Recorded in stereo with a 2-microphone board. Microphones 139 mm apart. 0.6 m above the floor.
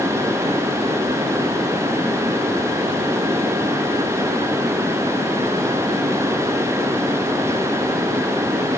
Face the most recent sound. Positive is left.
No sound to turn to.